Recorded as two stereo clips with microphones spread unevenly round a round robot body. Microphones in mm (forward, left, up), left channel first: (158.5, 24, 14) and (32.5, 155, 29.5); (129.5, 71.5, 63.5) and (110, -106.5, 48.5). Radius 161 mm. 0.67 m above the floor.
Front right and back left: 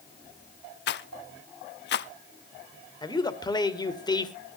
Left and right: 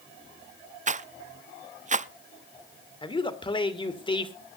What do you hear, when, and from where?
0.9 s a rattle: 50° right, 0.7 m
3.0 s a man speaking: 20° left, 2.5 m